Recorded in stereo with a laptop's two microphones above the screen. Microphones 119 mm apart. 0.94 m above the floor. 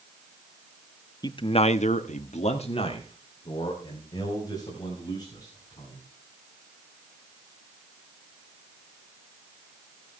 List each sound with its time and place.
1.2 s a man speaking: 35° left (ahead or behind), 1.2 m; by 6.0 s 30° left (ahead or behind), 6 m